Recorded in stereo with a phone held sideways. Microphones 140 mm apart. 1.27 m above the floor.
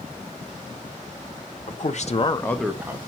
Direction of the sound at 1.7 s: 60° left (ahead or behind).